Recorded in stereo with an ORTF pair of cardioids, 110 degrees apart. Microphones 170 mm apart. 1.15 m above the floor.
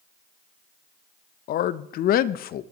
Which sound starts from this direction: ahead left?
A man speaking, at 1.5 s.